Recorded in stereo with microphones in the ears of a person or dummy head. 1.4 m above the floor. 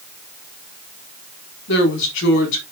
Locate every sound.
1.7 s a woman speaking: 75° left (ahead or behind), 3.5 m